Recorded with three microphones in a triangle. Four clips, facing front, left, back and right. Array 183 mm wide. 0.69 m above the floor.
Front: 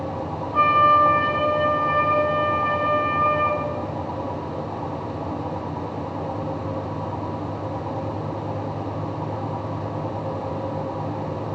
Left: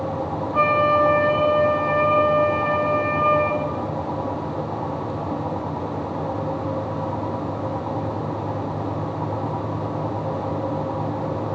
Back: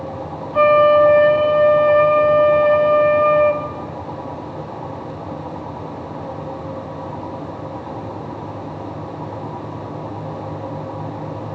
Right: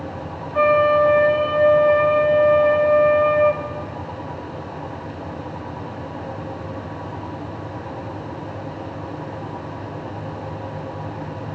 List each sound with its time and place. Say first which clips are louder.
0.5 s a flute: right 3 dB, back 5 dB; 155° right, 3.5 m